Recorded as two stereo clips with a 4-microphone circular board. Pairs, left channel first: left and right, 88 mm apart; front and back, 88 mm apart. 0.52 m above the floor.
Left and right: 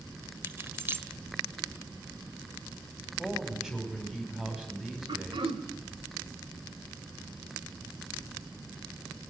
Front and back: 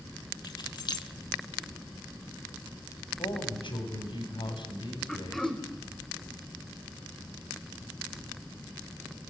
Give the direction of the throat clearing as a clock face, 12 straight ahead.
3 o'clock.